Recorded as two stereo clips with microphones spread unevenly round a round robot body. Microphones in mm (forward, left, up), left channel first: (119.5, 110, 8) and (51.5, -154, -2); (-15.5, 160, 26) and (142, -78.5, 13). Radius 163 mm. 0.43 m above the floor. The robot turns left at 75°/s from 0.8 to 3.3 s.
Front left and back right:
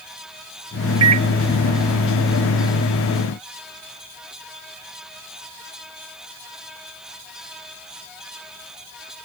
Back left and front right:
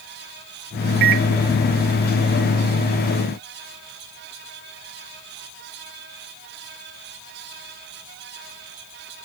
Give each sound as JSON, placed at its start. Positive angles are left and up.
{"t": 1.0, "sound": "a microwave", "azimuth_deg": -75}